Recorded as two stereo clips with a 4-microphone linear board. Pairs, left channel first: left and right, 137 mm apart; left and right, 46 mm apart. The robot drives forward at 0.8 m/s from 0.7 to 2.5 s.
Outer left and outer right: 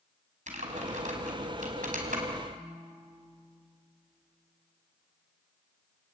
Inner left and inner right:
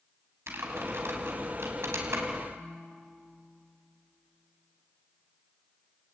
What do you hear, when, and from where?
0.5 s typing on a keyboard: 60° right (ahead or behind), 5 m; by 2.2 s 75° right (ahead or behind), 4.5 m
2.5 s a piano: 65° right (ahead or behind), 9 m